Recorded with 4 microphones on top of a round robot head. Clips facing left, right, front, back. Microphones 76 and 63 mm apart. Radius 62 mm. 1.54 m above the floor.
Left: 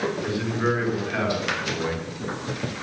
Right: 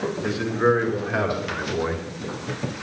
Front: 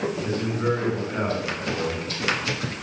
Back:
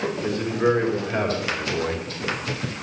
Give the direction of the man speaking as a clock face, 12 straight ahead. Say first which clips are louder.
Right 8 dB, back 6 dB; 5 o'clock.